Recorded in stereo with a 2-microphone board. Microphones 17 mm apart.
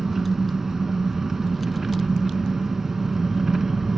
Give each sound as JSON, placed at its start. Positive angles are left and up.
{"t": 0.0, "sound": "an engine running", "side_deg": -25, "distance_m": 0.8}